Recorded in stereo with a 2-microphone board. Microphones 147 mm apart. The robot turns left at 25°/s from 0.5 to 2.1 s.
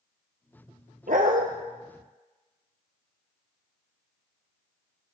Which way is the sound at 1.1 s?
75° right (ahead or behind).